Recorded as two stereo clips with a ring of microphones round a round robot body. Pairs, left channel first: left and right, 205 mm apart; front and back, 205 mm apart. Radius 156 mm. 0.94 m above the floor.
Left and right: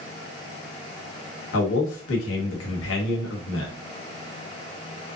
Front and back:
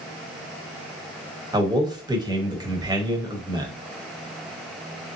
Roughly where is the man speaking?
Left.